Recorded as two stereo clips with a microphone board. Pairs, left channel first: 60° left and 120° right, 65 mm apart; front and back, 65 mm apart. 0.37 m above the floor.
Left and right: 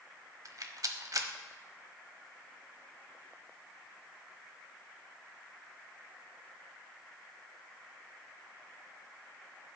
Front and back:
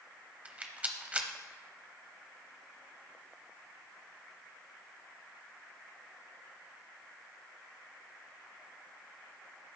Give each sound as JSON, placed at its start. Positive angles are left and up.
{"t": 0.5, "sound": "a rattle", "azimuth_deg": -110, "distance_m": 0.9}